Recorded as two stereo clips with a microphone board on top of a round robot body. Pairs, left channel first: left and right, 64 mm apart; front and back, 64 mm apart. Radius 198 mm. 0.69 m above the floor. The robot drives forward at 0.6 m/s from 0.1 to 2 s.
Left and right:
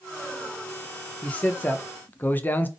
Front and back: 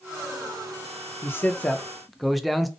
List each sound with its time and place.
1.2 s a man speaking: 30° left, 0.8 m; by 2.7 s 90° left, 0.7 m